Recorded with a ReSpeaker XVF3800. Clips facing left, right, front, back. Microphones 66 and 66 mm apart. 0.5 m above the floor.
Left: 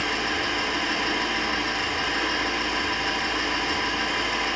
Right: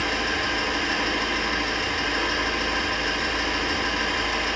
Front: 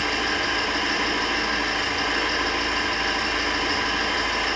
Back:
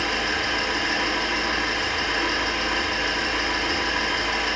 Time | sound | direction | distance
0.0 | an engine running | 5° left | 1.7 m